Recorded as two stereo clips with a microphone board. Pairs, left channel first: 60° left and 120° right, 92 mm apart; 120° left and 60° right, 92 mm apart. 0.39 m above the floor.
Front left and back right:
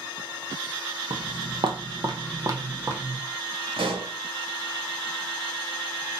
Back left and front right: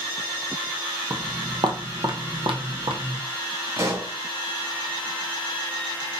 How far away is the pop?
About 1.4 m.